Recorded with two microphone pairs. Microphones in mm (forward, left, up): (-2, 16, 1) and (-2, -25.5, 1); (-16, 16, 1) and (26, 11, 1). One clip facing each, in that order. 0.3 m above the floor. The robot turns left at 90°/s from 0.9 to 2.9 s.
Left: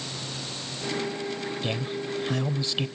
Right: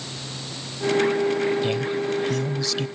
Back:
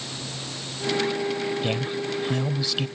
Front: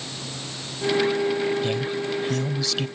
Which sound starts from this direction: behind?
A man speaking, at 1.6 s.